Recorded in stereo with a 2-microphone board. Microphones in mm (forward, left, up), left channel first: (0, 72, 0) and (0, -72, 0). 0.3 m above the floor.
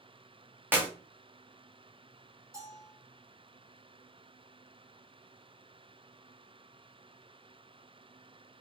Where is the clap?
15° right (ahead or behind), 1.0 m.